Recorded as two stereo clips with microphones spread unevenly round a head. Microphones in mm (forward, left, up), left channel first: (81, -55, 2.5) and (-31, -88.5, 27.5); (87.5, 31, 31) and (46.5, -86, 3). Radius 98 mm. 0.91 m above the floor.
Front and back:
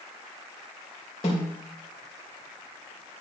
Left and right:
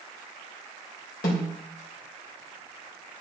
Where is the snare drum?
85° left, 4 m.